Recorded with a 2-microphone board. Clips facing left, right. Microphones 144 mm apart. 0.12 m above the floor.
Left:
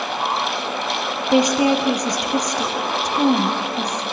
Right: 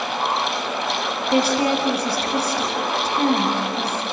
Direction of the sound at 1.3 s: 15° left (ahead or behind).